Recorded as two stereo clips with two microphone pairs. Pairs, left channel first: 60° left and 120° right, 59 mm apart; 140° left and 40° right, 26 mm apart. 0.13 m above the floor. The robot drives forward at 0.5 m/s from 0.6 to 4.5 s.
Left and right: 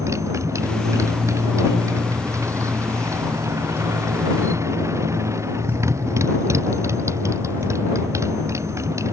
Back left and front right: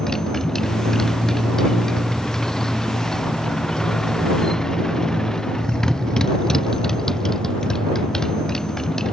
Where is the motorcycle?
150° right.